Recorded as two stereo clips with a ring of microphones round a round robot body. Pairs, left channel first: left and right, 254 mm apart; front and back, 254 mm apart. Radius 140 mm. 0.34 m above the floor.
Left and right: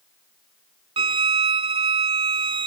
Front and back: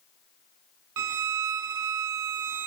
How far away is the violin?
About 0.6 m.